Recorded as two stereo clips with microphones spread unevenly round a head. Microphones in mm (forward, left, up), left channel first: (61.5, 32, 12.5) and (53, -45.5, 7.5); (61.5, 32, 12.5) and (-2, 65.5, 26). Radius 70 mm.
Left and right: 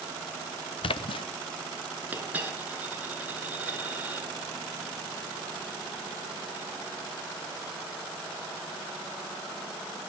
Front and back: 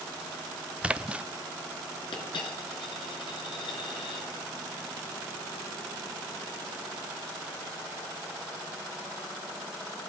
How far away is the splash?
About 1.1 m.